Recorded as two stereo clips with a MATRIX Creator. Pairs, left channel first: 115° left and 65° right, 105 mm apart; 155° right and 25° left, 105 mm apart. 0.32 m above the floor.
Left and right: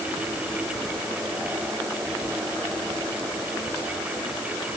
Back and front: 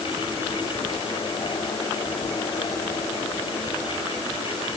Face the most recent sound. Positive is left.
No sound to turn to.